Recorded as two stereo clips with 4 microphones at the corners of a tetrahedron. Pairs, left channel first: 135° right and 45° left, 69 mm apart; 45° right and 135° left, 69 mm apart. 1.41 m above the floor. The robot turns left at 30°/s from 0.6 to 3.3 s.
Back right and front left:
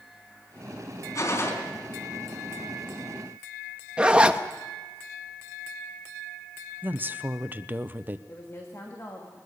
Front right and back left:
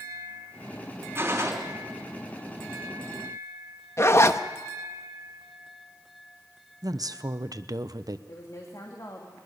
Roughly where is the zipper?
Ahead.